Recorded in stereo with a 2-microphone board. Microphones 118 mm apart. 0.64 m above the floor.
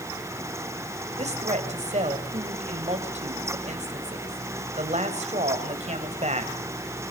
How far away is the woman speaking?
About 3 m.